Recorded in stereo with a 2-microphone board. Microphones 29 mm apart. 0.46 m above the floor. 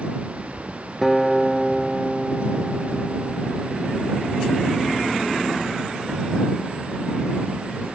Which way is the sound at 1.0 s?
5° right (ahead or behind).